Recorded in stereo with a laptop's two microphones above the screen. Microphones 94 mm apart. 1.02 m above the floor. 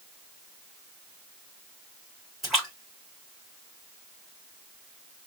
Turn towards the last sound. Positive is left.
turn(degrees=0)  # may be behind; listen again after turning